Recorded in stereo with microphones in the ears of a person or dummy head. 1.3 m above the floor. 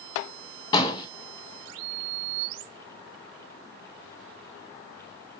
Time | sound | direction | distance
0.7 | an explosion | 20° left (ahead or behind) | 0.8 m